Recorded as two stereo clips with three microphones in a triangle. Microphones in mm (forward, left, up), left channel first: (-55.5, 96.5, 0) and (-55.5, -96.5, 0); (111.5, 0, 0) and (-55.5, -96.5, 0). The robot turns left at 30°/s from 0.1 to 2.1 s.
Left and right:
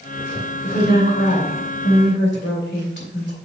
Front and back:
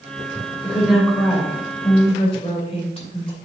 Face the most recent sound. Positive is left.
turn(degrees=85)